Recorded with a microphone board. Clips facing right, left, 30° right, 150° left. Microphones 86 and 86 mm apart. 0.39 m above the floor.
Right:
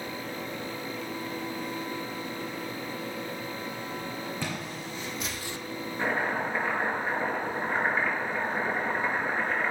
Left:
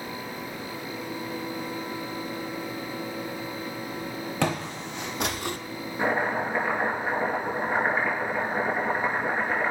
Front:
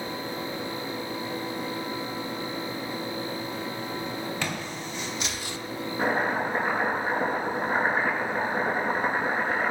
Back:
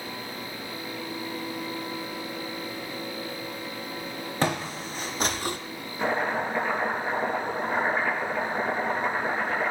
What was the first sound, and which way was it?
Footsteps, 100° left.